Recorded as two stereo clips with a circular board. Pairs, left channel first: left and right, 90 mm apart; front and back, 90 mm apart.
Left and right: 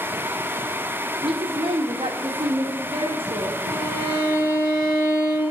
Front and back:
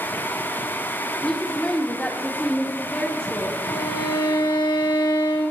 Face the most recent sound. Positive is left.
turn(degrees=35)